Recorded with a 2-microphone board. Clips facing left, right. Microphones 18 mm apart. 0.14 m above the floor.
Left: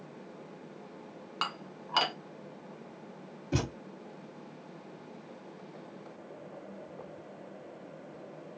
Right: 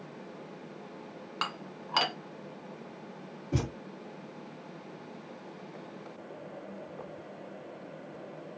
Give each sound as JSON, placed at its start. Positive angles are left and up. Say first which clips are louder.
{"t": 1.4, "sound": "dishes clattering", "louder": "even", "side_deg": 0, "distance_m": 0.8}
{"t": 3.5, "sound": "a thud", "louder": "even", "side_deg": 70, "distance_m": 1.6}